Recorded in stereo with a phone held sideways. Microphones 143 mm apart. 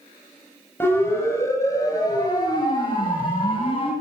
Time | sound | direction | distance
0.8 | a siren | 15° left (ahead or behind) | 9 m